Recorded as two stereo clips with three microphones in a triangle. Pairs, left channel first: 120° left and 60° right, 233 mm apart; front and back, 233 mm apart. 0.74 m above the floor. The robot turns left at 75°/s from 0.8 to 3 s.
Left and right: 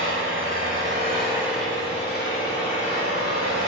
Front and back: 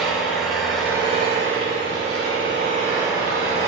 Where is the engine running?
90° right, 1.7 m; by 3.7 s 105° left, 1.7 m.